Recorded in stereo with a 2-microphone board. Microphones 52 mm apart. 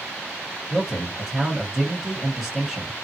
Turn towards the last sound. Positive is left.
turn(degrees=-10)  # may be behind; listen again after turning